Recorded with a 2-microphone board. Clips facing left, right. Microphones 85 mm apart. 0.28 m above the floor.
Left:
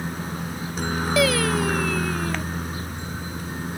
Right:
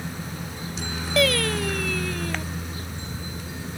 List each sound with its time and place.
0.0 s a helicopter: 50° left (ahead or behind)
1.2 s singing: 5° left (ahead or behind)